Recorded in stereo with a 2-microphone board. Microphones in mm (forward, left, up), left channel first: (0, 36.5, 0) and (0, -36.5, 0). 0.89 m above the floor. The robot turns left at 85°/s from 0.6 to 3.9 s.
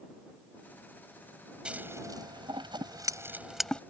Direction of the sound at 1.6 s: 10° right (ahead or behind).